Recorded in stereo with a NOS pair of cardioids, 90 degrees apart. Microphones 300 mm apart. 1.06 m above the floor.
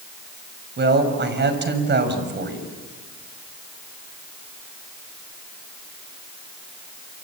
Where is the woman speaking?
35° right, 6 m.